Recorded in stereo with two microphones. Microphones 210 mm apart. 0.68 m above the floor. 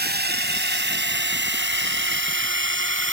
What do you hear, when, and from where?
0.0 s a drone: 50° right (ahead or behind); by 3.1 s 65° right (ahead or behind)